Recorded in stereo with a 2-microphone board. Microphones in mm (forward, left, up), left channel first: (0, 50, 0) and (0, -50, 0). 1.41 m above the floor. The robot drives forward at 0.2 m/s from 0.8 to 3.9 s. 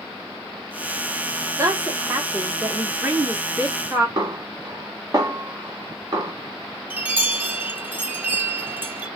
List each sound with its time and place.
1.6 s a woman speaking: 30° right (ahead or behind), 1.1 m; by 4.1 s 20° right (ahead or behind), 1.5 m
4.2 s a snare drum: 40° right (ahead or behind), 1.0 m
6.9 s a chime: 15° right (ahead or behind), 0.5 m